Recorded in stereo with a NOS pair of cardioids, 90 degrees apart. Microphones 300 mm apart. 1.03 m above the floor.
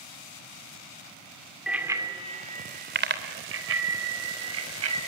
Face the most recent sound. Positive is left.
turn(degrees=-55)